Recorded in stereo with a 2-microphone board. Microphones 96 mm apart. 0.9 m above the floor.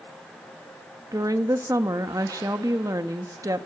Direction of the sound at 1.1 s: 35° right (ahead or behind).